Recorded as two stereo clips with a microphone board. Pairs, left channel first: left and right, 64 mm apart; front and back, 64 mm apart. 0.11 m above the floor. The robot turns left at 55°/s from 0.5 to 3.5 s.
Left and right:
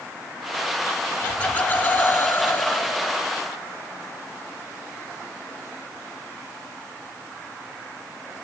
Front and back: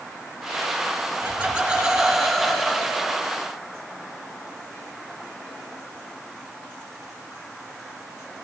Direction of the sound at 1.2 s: 140° left.